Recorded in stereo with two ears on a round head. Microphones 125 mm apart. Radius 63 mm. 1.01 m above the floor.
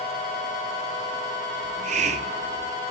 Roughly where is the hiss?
Right.